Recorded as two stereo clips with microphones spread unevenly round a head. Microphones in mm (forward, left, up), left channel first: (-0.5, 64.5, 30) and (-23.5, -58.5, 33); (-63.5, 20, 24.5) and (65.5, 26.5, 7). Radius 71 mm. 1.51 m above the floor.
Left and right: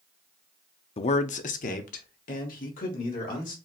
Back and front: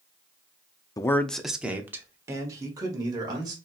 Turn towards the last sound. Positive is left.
turn(degrees=60)